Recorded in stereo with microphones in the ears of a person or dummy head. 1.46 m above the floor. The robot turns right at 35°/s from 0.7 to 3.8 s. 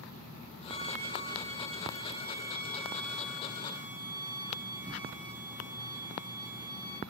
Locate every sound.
0.7 s a violin: 135° left, 2.5 m; by 7.0 s 115° right, 2.5 m